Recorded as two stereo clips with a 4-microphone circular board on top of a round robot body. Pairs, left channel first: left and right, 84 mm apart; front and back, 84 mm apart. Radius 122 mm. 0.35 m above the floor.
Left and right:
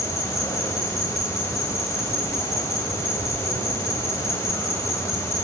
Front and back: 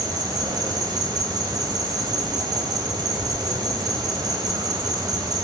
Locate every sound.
0.0 s an insect: 145° left, 4 m